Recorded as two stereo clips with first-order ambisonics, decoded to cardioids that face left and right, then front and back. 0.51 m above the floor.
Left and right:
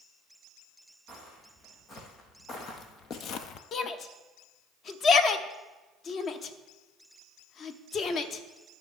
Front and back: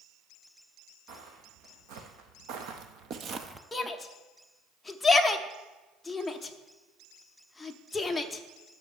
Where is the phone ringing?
No phone ringing in this recording.